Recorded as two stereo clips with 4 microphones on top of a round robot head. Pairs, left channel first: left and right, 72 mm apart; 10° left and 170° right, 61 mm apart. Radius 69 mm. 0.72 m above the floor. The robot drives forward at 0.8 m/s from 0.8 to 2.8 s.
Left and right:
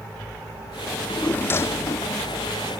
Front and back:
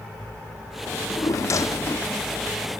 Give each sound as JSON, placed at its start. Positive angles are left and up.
{"t": 0.9, "sound": "a drawer", "azimuth_deg": 25}